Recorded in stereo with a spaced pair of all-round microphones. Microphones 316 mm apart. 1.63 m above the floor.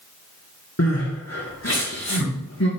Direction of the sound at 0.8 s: 55° left (ahead or behind).